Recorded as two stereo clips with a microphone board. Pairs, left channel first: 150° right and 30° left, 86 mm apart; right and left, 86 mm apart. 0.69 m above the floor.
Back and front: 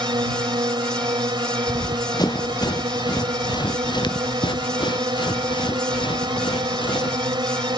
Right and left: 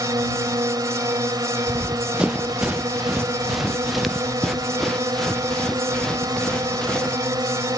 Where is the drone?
50° left.